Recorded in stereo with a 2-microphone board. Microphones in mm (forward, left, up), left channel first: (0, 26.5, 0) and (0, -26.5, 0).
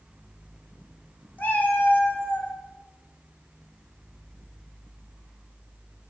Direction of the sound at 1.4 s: 40° left (ahead or behind).